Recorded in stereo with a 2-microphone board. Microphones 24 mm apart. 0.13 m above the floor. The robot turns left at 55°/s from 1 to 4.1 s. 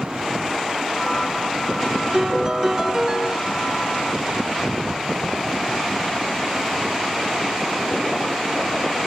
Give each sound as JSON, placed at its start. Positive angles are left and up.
{"t": 2.1, "sound": "a piano", "side_deg": -25, "distance_m": 0.7}